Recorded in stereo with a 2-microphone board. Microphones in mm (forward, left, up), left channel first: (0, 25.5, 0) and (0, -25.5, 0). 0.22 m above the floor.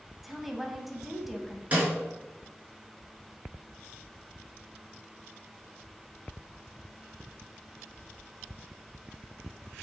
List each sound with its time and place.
0.2 s a woman speaking: centre (ahead or behind), 1.0 m
1.7 s a snare drum: 25° right (ahead or behind), 3.5 m